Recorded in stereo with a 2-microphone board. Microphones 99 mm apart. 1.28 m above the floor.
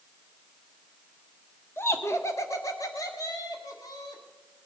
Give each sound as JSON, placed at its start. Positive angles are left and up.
{"t": 1.8, "sound": "laughter", "side_deg": 25, "distance_m": 1.0}